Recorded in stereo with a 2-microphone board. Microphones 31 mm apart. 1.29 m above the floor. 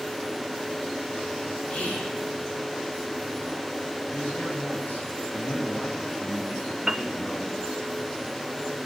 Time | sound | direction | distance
1.7 | whispering | 45° left (ahead or behind) | 6.5 m
4.1 | a man speaking | 80° left | 7.5 m
6.9 | a piano | 15° right (ahead or behind) | 0.7 m